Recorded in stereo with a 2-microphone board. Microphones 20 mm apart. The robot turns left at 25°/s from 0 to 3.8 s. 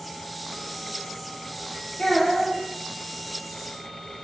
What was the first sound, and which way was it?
A child speaking, 75° left (ahead or behind).